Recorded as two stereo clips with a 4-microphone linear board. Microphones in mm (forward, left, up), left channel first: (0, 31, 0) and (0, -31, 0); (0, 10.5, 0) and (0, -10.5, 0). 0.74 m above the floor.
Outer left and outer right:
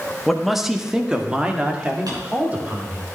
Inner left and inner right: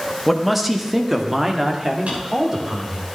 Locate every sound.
0.3 s a man speaking: centre (ahead or behind), 1.4 m; by 3.1 s 30° right (ahead or behind), 3 m
2.1 s a drawer: 90° right, 5.5 m